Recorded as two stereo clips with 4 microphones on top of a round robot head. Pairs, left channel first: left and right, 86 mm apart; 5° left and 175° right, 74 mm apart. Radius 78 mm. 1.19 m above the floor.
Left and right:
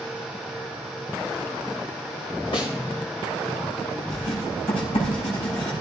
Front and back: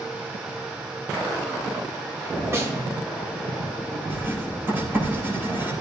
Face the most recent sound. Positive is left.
turn(degrees=125)